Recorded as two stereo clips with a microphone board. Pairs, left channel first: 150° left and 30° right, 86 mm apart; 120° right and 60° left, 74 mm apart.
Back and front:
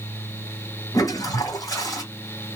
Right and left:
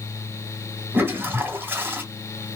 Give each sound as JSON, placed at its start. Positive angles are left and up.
{"t": 0.9, "sound": "a toilet flushing", "azimuth_deg": 115, "distance_m": 1.9}